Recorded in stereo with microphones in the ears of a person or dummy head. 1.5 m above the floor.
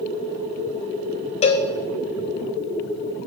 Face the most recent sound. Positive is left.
turn(degrees=35)  # may be behind; listen again after turning